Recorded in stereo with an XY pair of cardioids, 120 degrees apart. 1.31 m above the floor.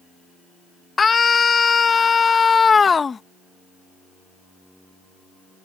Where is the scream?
30° left.